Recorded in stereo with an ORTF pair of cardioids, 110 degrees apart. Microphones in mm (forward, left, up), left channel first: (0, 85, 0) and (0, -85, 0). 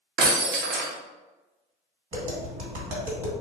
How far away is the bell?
I don't hear a bell.